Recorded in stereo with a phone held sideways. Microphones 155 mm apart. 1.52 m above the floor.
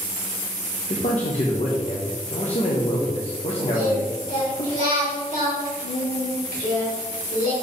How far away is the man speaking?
About 1.0 m.